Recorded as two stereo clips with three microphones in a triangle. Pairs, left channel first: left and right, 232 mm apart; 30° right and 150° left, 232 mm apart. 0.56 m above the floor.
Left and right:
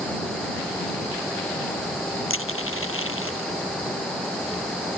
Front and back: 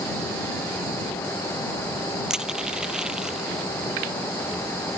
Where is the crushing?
65° left.